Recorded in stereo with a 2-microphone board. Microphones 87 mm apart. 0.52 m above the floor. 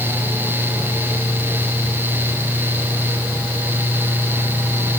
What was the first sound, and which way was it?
Only background noise.